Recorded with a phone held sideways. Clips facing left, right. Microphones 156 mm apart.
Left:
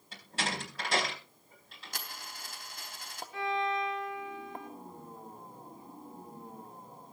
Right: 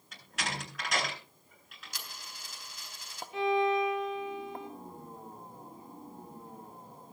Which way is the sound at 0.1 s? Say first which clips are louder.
Left 2 dB; 30° left (ahead or behind).